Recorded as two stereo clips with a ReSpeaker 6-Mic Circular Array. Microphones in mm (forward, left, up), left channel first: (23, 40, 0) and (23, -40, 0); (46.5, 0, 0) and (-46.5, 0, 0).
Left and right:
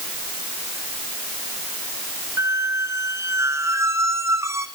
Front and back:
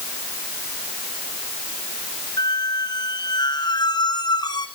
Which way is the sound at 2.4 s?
40° right.